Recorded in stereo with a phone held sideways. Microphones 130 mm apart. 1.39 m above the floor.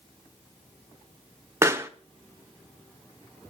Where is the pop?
20° right (ahead or behind), 0.8 m.